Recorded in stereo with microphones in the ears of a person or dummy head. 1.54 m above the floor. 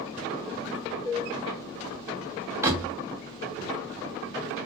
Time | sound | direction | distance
1.1 | dishes clattering | 25° left (ahead or behind) | 1.6 m
2.6 | a door slam | 15° right (ahead or behind) | 0.6 m